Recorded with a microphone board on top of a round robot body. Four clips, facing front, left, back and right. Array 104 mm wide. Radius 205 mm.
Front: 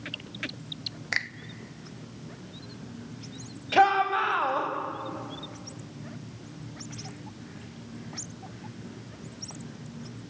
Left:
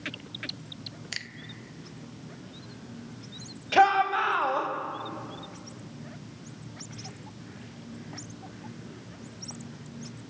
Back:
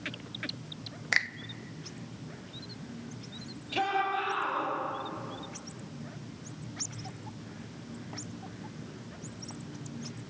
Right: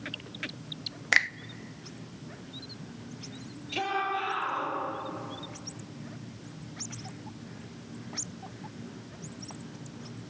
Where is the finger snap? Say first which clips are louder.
Right 19 dB, back 2 dB; 95° right, 0.6 m.